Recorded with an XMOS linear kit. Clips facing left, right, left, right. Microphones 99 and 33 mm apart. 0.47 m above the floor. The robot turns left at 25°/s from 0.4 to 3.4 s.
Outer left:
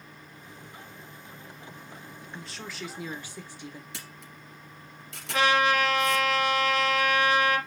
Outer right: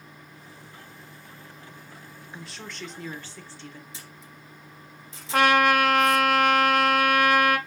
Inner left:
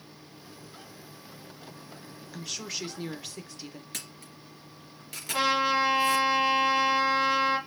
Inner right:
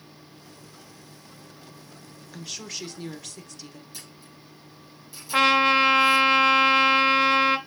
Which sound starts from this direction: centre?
A woman speaking, at 2.3 s.